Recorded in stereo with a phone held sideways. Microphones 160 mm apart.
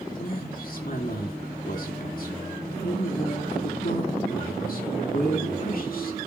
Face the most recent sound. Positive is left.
turn(degrees=65)  # may be behind; listen again after turning